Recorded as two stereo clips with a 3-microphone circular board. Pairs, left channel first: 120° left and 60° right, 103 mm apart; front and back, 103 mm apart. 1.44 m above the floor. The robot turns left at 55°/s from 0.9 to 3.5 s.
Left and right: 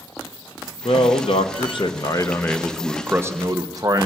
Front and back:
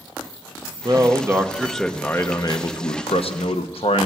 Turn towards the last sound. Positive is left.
turn(degrees=-10)